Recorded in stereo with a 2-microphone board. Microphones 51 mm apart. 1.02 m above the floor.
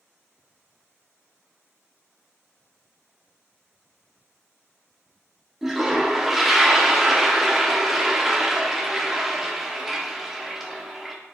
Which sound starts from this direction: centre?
A toilet flushing, at 5.6 s.